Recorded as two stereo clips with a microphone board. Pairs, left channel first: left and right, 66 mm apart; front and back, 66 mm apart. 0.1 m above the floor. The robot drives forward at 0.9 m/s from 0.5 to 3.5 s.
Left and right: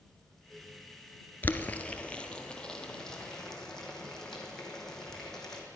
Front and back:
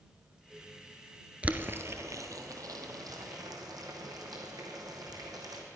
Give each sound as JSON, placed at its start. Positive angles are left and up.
{"t": 1.4, "sound": "boiling", "azimuth_deg": 125, "distance_m": 0.6}